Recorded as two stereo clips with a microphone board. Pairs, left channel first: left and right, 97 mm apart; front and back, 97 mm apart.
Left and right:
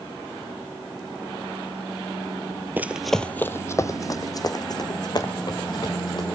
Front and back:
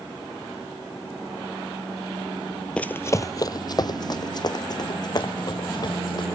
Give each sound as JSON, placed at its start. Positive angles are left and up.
{"t": 2.8, "sound": "running footsteps", "azimuth_deg": -60, "distance_m": 0.6}